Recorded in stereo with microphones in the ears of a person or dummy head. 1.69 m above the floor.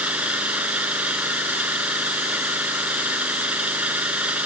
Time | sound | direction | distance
0.0 | an engine running | 10° right (ahead or behind) | ?